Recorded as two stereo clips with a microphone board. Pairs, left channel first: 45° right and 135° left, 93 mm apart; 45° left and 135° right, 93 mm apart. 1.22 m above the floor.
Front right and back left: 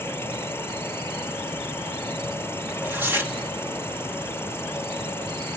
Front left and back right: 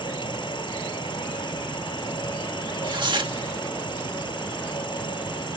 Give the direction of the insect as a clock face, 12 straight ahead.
11 o'clock.